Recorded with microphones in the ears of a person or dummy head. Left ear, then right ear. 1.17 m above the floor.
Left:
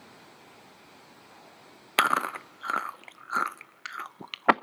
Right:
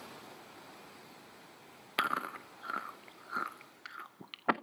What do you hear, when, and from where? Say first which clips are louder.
2.0 s chewing: left 9 dB; 25° left (ahead or behind), 0.6 m